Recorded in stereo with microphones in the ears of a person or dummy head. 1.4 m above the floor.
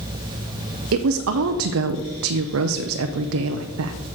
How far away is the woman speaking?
About 0.5 m.